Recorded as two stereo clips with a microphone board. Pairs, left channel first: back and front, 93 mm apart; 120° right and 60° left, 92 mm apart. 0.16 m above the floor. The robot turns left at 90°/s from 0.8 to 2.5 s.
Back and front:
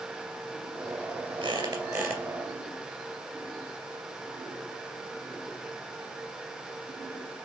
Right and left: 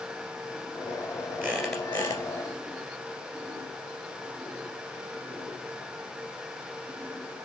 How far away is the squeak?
About 2 m.